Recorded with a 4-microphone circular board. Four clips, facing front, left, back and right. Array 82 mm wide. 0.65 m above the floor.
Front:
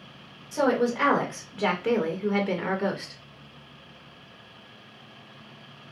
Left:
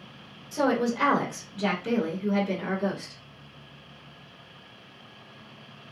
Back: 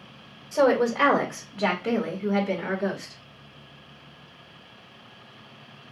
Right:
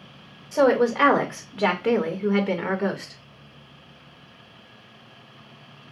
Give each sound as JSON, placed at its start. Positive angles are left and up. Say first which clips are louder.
{"t": 0.5, "sound": "a woman speaking", "louder": "right 6 dB, back 3 dB", "azimuth_deg": -110, "distance_m": 1.7}